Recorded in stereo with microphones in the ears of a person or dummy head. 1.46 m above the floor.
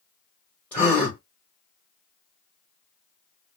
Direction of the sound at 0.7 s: 5° left (ahead or behind).